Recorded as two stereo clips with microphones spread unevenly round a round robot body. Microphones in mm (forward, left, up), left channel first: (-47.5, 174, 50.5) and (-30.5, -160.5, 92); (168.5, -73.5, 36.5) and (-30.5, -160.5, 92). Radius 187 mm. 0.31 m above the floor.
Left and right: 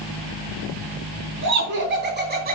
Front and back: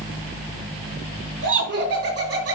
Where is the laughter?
145° right, 4.5 m; by 2.6 s 155° right, 3.5 m.